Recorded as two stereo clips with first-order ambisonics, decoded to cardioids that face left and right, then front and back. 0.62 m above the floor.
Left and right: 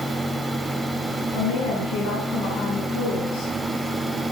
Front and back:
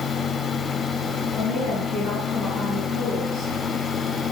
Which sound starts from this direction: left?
A woman speaking, at 1.3 s.